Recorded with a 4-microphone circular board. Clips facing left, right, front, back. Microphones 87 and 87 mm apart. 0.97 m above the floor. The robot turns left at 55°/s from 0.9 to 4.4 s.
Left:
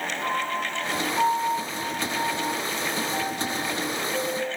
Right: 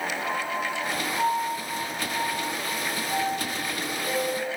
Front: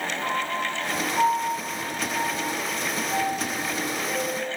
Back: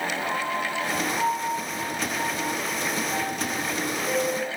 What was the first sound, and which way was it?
A piano, 40° left.